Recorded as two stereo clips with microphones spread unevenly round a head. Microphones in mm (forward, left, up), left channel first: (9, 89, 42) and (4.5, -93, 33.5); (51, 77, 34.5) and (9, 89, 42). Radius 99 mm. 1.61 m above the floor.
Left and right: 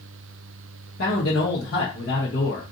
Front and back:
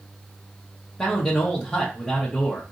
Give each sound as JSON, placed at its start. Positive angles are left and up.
{"t": 1.0, "sound": "a man speaking", "azimuth_deg": 60, "distance_m": 1.1}